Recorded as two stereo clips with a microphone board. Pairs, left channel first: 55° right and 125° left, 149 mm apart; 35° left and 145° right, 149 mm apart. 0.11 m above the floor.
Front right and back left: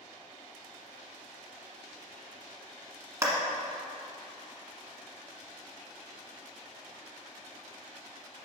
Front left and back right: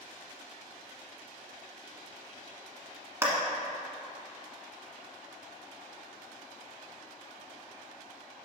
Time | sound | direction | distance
3.2 | a clap | 165° left | 1.2 m